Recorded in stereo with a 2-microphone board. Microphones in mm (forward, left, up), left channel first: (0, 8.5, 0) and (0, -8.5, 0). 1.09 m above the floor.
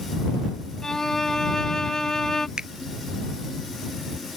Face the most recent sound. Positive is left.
turn(degrees=-55)  # may be behind; listen again after turning